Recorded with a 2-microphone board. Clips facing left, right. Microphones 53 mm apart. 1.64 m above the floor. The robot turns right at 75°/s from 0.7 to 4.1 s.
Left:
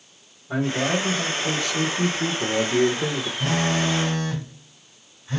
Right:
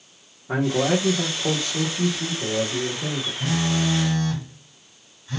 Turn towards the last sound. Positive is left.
turn(degrees=150)